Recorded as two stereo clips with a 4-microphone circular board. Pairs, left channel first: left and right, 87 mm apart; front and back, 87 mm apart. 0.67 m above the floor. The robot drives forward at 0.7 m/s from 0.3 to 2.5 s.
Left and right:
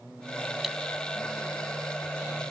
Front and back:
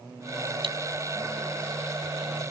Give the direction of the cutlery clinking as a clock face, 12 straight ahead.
6 o'clock.